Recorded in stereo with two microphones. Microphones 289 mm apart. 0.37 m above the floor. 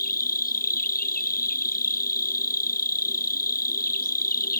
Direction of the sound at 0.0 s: 30° left (ahead or behind).